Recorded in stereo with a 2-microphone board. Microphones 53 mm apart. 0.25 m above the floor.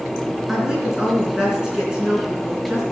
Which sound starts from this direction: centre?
A woman speaking, at 0.5 s.